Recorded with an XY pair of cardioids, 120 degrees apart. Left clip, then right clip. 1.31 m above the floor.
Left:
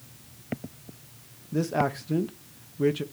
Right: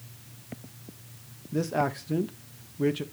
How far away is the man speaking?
About 1.1 m.